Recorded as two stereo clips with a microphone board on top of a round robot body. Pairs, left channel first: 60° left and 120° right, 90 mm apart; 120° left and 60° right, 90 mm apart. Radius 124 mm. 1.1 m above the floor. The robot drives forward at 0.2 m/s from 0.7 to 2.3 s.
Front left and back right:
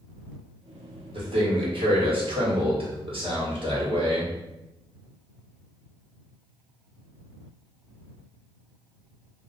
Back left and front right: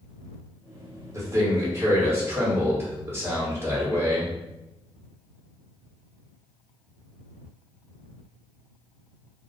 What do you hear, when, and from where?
1.1 s a man speaking: 115° right, 1.5 m; by 4.3 s 125° right, 1.6 m